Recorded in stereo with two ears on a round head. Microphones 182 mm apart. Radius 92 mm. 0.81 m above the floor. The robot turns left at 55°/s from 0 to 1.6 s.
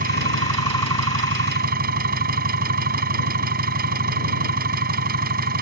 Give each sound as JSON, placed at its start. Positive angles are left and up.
{"t": 0.0, "sound": "an engine running", "azimuth_deg": -40}